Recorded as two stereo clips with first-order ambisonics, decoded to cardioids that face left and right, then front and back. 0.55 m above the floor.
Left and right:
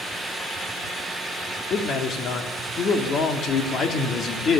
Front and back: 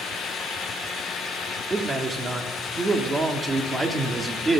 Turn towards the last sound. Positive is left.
turn(degrees=115)